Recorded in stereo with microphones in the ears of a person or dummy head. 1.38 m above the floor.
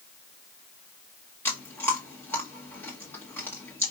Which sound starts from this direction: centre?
Chewing, at 1.4 s.